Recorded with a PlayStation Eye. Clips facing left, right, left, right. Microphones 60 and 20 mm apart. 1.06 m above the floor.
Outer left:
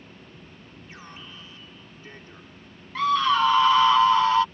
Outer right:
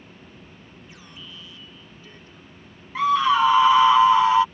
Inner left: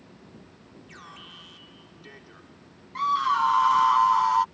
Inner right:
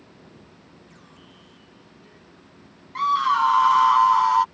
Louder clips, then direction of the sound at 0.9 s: Outer left 2 dB, inner left 5 dB; 35° left (ahead or behind).